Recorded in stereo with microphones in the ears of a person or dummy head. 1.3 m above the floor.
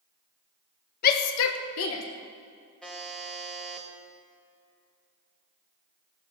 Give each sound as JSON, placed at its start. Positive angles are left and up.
{"t": 1.0, "sound": "a shout", "side_deg": 45, "distance_m": 1.3}
{"t": 2.8, "sound": "a buzzer", "side_deg": 0, "distance_m": 1.2}